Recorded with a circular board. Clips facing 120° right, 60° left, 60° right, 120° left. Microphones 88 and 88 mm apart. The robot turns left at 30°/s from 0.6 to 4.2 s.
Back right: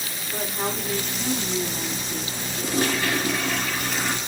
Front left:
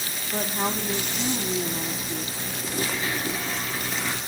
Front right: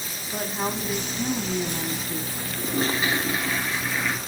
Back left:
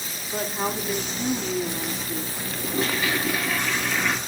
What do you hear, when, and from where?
0.3 s a woman speaking: 40° left, 1.3 m; by 2.5 s 20° right, 1.3 m
2.6 s a toilet flushing: 100° right, 3 m; by 4.2 s 150° right, 3 m